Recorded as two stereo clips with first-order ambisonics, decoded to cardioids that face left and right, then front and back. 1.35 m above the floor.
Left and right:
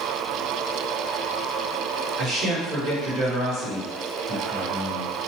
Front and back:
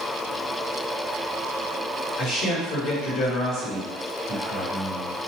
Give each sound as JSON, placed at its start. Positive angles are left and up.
{"t": 2.2, "sound": "a man speaking", "azimuth_deg": -35, "distance_m": 1.7}